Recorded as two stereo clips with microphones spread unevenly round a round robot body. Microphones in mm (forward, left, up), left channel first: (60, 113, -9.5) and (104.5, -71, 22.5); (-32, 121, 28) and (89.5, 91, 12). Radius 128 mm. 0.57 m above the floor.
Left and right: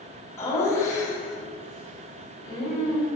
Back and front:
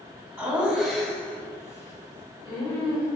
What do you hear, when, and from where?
0.4 s laughter: 45° left, 1.1 m; by 3.1 s 170° left, 1.1 m